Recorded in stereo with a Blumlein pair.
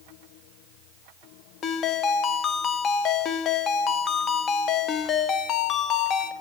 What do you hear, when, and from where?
1.6 s a ringtone: 25° left, 0.5 m